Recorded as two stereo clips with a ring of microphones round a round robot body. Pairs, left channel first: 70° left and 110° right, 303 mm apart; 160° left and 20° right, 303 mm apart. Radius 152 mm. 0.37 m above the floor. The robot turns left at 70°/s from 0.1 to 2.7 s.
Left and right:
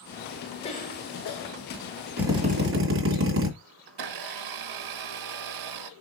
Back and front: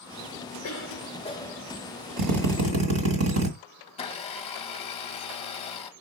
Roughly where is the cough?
Behind left.